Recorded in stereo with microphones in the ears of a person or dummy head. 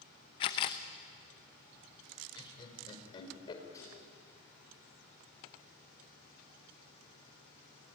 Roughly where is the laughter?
Left.